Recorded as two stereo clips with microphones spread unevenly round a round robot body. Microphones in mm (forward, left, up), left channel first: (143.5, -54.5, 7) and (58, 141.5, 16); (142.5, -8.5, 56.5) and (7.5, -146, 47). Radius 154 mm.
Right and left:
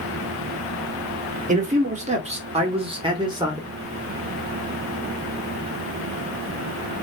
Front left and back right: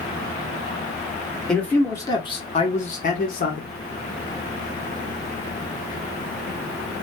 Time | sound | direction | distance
1.5 | a man speaking | 135° left | 1.3 m